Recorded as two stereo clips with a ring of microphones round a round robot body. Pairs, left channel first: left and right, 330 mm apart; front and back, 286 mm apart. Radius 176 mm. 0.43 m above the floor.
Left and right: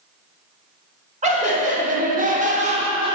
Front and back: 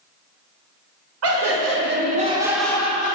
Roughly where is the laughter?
Behind right.